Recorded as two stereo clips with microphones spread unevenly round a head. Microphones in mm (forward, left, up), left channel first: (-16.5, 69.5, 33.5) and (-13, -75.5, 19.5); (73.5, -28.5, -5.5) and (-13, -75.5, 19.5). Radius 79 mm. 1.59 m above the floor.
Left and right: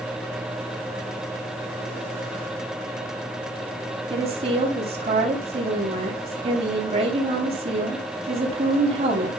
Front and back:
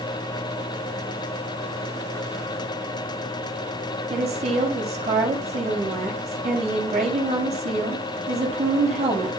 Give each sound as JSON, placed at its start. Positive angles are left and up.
{"t": 4.1, "sound": "a woman speaking", "azimuth_deg": -140, "distance_m": 7.5}